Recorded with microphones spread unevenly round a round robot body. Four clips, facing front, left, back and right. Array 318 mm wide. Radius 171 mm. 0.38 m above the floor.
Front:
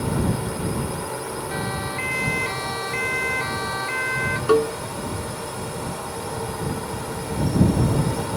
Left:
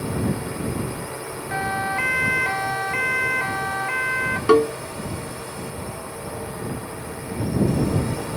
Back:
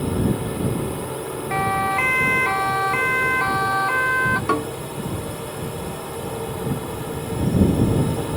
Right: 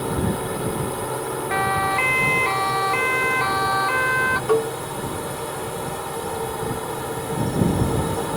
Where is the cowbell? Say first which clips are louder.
Left 6 dB, front 4 dB; 115° left.